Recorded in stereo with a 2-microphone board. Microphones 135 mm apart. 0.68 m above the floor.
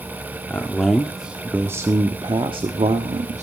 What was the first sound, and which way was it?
A man speaking, 10° left (ahead or behind).